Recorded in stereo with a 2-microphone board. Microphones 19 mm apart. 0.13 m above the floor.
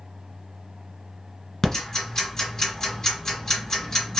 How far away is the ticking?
About 2 m.